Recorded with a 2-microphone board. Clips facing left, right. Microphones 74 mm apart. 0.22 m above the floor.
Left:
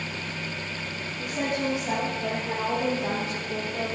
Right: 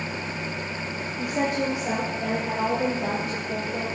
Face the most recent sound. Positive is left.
turn(degrees=-60)  # may be behind; listen again after turning